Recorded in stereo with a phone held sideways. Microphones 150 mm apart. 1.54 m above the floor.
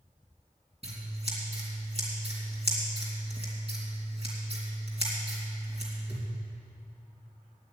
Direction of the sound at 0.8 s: 40° right (ahead or behind).